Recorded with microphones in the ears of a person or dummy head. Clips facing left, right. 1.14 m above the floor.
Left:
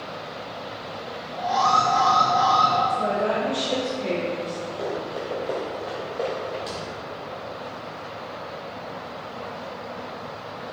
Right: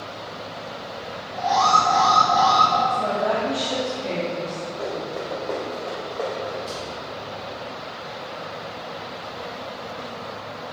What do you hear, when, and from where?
1.4 s an alarm: 70° right (ahead or behind), 1.3 m
2.9 s a woman speaking: 30° left (ahead or behind), 0.9 m
4.8 s running footsteps: 25° left (ahead or behind), 1.2 m; by 6.6 s 5° left (ahead or behind), 2 m
6.7 s a thud: 30° left (ahead or behind), 0.9 m